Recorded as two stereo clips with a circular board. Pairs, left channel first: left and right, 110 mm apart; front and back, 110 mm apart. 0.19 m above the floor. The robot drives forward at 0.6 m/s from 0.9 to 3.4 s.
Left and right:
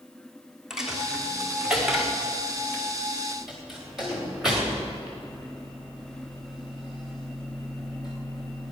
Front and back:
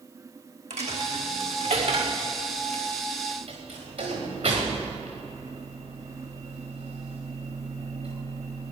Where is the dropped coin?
175° right, 2 m.